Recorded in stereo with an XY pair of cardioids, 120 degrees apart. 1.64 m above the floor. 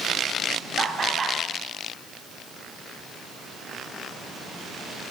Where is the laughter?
35° right, 4 m.